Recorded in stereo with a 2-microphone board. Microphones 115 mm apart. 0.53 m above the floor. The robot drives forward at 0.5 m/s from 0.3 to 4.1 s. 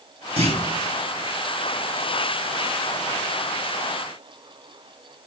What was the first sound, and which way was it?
A clunk, 65° right (ahead or behind).